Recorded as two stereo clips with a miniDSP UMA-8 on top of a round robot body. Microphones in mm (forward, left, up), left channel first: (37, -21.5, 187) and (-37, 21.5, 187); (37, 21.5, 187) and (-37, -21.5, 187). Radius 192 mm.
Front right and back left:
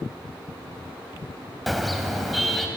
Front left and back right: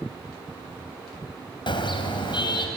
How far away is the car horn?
About 3 m.